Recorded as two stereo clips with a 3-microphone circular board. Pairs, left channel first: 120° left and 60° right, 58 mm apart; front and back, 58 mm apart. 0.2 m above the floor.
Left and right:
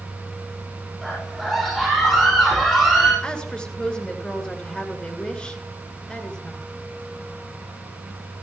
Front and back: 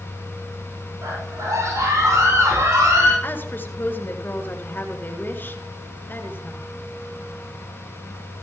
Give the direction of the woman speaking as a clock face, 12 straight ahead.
10 o'clock.